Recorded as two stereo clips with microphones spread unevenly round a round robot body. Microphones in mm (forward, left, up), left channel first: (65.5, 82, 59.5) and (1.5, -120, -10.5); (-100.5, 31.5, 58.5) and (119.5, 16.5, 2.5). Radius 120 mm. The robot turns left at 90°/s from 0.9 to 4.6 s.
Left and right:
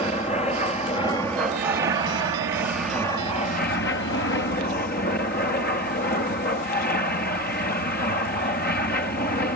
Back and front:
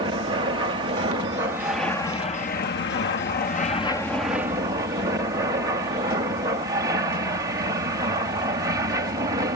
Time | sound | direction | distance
0.0 | an aircraft | 5° left | ?